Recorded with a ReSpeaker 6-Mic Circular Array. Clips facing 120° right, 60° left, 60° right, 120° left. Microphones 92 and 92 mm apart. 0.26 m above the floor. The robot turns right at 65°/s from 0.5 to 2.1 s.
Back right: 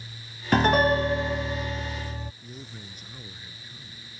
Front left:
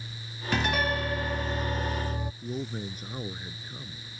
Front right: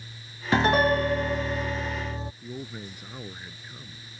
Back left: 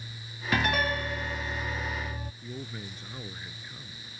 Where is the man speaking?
15° left.